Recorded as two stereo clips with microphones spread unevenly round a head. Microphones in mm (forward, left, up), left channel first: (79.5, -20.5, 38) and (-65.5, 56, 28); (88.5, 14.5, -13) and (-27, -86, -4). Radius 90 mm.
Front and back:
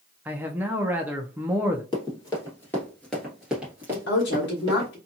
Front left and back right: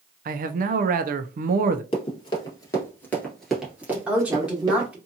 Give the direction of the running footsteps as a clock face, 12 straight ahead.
12 o'clock.